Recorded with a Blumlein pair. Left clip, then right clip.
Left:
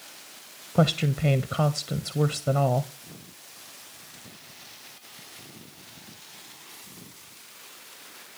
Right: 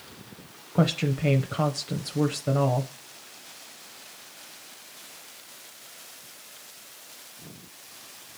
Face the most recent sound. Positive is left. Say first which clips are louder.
# left 2 dB
turn(degrees=5)